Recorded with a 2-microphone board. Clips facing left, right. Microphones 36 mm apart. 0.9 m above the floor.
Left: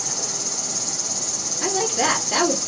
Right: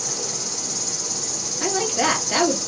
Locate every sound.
0.0 s an insect: 5° right (ahead or behind), 2.0 m
1.6 s a woman speaking: 20° right (ahead or behind), 2.5 m